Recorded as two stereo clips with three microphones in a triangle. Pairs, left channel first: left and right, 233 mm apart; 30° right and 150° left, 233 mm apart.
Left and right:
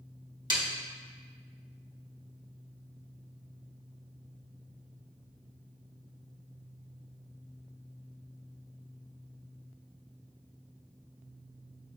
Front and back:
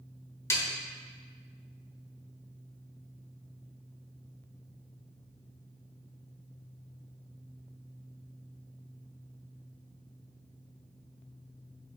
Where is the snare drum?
80° right, 1.4 m.